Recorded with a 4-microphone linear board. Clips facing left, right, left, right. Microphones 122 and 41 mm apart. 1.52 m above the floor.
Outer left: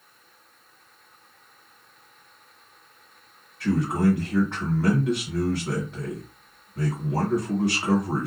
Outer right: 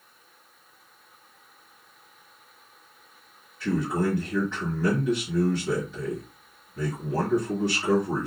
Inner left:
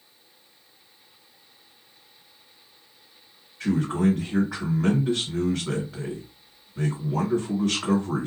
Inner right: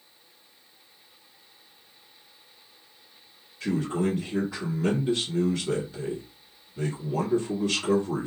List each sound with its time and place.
3.6 s a man speaking: 55° left (ahead or behind), 1.4 m